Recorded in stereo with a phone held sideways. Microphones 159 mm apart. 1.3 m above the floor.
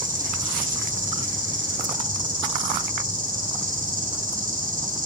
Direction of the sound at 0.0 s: 55° right (ahead or behind).